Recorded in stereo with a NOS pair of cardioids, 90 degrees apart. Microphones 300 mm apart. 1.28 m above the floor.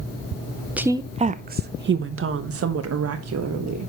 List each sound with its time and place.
0.8 s a woman speaking: 5° right, 0.7 m; by 3.9 s 60° right, 1.9 m